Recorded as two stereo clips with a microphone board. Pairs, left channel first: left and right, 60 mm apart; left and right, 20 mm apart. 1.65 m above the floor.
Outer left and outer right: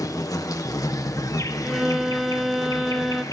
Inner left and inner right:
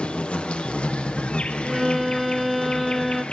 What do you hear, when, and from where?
0.0 s an insect: 75° left (ahead or behind), 1.5 m
1.6 s a violin: 5° right (ahead or behind), 1.0 m